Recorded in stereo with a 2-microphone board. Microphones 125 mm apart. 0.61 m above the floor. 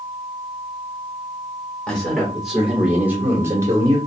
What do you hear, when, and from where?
1.9 s a man speaking: 5° left (ahead or behind), 2.0 m; by 4.0 s 30° right (ahead or behind), 1.6 m